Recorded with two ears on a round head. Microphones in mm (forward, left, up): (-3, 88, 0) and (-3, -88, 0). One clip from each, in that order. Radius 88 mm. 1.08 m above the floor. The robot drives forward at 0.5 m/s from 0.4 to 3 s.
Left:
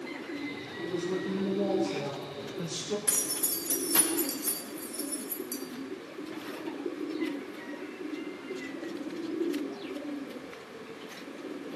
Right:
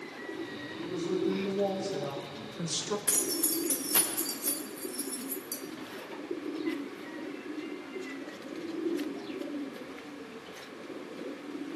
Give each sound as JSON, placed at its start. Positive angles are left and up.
{"t": 0.8, "sound": "a woman speaking", "side_deg": -15, "distance_m": 1.5}
{"t": 3.1, "sound": "keys jangling", "side_deg": -5, "distance_m": 1.0}